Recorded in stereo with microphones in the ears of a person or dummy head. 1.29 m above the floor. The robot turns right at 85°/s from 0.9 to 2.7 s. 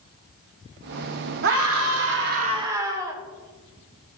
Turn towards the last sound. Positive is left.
turn(degrees=-20)